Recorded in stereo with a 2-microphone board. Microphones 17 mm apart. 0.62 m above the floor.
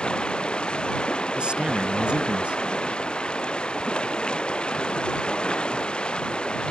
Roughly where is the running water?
Left.